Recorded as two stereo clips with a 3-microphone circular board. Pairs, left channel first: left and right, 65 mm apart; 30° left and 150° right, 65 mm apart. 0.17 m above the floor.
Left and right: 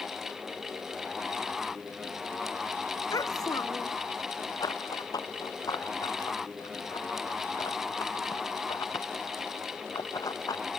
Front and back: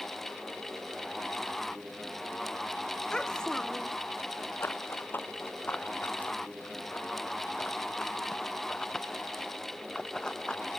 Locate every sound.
3.1 s a child speaking: 110° left
4.6 s running footsteps: 85° left; by 10.8 s 110° left